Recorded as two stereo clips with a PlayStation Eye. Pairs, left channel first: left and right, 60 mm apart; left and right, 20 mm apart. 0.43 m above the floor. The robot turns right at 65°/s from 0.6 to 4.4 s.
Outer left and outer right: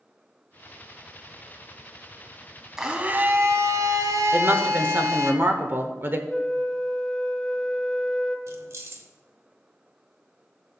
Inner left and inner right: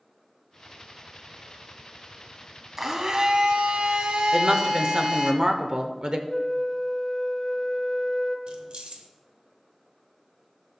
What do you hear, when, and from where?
2.8 s a blender: 170° right, 0.9 m; by 5.3 s 65° right, 0.9 m
4.3 s a woman speaking: 40° right (ahead or behind), 0.9 m
6.3 s a flute: 10° left (ahead or behind), 0.8 m
8.5 s keys jangling: 55° right (ahead or behind), 0.9 m